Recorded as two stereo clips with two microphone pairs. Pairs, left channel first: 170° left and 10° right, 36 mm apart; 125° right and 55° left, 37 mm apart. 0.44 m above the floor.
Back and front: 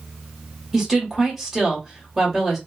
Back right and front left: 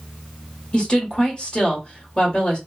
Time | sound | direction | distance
0.7 | a woman speaking | 95° right | 1.4 m